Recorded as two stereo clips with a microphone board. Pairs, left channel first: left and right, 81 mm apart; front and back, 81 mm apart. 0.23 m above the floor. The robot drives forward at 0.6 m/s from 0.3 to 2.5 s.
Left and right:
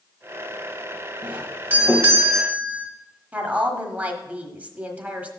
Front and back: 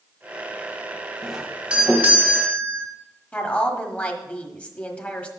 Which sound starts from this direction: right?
A doorbell, at 1.2 s.